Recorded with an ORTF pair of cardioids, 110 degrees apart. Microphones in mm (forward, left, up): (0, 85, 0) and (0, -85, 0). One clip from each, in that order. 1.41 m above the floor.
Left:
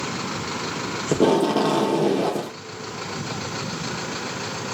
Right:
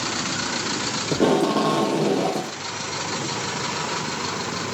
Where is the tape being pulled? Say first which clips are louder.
Left 1 dB; 10° left, 0.5 m.